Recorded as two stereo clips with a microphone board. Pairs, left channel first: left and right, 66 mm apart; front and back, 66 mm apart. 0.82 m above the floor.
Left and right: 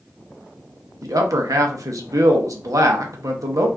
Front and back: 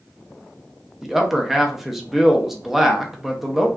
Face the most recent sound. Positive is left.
turn(degrees=-95)